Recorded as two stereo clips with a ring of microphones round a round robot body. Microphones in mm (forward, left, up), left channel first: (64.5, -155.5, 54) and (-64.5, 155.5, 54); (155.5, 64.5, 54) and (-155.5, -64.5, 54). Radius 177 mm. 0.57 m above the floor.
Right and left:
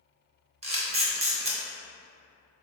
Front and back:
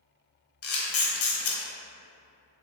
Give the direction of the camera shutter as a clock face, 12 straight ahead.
10 o'clock.